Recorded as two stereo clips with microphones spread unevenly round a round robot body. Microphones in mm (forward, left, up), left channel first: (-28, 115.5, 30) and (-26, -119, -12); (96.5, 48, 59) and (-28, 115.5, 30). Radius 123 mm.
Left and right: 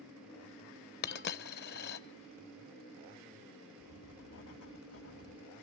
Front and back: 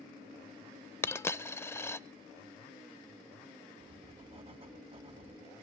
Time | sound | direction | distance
1.0 | a dropped coin | 45° left | 0.6 m
3.8 | writing | 105° left | 3.5 m